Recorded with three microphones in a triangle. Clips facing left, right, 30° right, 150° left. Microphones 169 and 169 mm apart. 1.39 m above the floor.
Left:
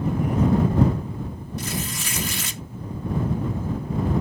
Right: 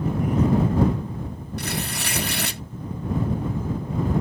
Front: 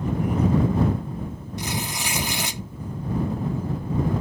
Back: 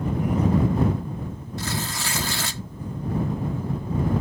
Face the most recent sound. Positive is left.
turn(degrees=-100)